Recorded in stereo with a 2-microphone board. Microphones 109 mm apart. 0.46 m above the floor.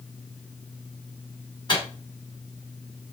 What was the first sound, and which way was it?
A microwave, 40° left (ahead or behind).